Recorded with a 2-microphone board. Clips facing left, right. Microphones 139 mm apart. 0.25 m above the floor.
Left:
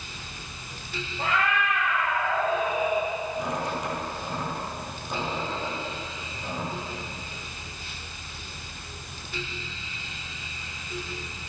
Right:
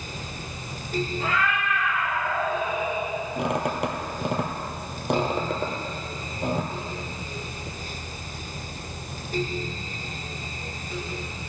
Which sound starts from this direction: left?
A cat meowing, at 1.2 s.